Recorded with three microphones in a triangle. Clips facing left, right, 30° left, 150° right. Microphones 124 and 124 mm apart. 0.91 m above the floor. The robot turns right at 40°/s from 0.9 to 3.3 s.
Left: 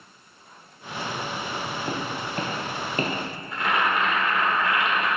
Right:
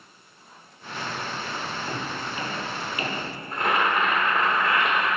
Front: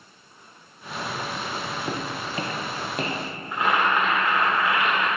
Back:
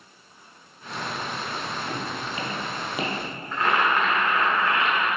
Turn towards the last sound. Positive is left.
turn(degrees=-50)